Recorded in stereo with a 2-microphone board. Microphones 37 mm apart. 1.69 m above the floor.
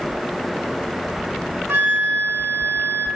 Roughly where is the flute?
Right.